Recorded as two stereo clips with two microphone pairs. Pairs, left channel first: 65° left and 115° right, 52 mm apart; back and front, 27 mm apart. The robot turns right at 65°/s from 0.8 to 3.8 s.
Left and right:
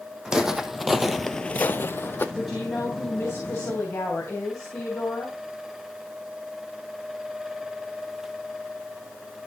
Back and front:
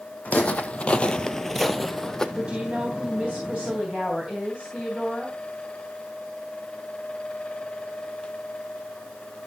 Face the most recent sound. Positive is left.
turn(degrees=65)